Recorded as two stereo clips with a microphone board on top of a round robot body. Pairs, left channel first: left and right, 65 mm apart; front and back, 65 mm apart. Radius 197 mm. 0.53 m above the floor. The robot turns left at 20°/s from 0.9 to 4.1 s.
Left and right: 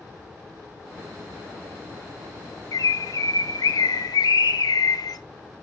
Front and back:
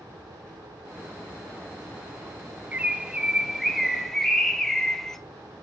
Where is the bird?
115° left, 0.8 m; by 5.2 s 85° left, 0.8 m.